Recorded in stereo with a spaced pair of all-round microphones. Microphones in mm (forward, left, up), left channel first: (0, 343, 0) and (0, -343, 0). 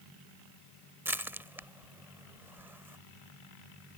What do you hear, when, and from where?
1.1 s crushing: 5° right (ahead or behind)